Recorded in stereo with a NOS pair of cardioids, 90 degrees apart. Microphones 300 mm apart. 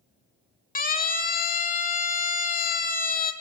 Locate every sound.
0.8 s a siren: 25° left, 3 m